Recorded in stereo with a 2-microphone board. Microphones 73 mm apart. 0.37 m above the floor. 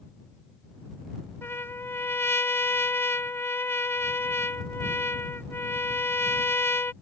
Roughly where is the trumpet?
Left.